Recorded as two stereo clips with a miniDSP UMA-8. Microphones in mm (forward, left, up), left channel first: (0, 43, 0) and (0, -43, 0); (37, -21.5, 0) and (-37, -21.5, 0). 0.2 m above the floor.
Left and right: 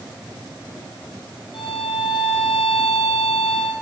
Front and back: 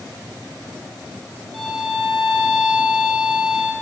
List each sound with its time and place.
1.5 s a violin: 90° left, 2.5 m